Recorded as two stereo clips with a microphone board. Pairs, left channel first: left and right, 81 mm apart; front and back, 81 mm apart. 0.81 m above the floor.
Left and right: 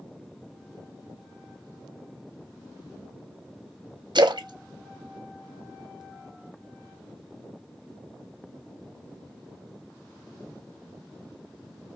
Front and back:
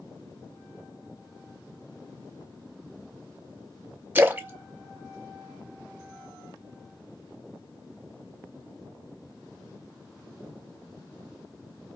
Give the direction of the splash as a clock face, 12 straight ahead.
4 o'clock.